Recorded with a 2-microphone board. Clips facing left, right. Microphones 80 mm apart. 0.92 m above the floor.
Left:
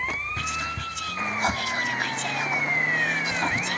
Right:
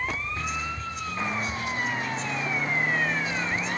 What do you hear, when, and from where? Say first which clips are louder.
0.4 s whispering: left 1 dB; 70° left (ahead or behind), 2 m